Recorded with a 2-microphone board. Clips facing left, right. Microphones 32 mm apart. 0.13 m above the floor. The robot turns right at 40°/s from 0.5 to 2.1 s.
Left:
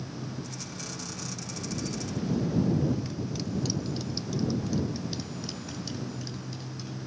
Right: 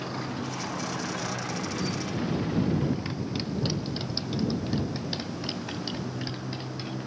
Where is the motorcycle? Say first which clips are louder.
Right 6 dB; 110° right; by 7.1 s 45° right.